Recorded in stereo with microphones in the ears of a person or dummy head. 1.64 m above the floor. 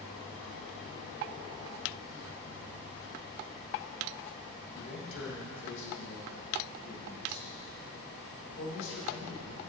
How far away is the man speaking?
About 1.6 m.